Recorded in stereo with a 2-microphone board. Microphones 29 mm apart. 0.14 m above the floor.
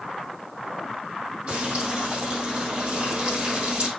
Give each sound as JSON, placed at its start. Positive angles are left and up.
{"t": 1.5, "sound": "frying", "side_deg": -50, "distance_m": 5.5}